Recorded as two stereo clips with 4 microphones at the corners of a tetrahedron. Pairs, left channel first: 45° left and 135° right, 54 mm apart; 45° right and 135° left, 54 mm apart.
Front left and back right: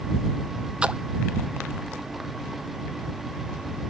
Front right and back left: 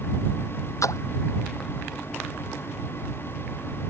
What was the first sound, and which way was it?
A splash, 65° right.